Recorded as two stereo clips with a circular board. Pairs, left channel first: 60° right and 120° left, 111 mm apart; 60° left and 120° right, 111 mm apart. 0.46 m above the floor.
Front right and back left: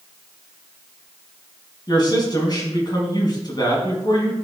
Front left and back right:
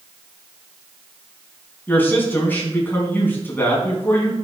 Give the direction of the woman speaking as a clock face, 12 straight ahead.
12 o'clock.